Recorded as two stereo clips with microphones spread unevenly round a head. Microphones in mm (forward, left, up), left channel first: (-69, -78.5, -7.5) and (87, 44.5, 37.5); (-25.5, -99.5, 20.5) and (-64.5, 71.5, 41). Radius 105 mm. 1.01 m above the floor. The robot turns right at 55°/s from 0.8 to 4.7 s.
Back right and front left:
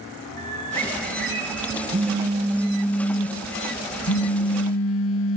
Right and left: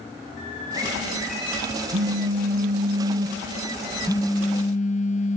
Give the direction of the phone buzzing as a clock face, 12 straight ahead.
9 o'clock.